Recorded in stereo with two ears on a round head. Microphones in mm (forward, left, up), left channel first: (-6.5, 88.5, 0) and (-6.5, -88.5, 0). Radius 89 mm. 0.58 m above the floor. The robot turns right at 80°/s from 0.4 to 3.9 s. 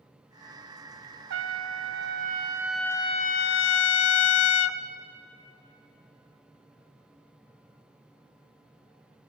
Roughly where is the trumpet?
Behind right.